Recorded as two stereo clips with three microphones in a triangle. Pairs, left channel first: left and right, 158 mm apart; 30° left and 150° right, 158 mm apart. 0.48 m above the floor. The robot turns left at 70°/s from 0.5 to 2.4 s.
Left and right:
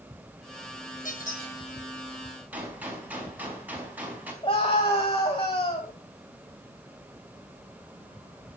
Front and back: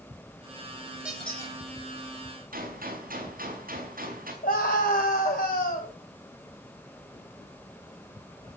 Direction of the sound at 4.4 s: 40° left.